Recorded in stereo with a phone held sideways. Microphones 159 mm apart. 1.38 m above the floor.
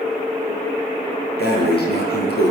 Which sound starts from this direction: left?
Breathing, at 1.4 s.